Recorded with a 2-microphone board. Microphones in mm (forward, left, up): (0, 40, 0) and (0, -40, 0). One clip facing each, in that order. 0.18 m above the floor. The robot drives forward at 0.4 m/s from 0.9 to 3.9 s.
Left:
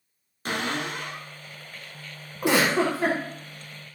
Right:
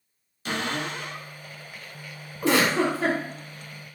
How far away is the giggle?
About 0.9 m.